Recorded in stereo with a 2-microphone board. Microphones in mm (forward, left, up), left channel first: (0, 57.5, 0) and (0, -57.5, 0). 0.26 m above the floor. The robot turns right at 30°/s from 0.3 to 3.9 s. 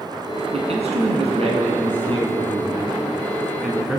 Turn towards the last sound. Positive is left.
turn(degrees=-5)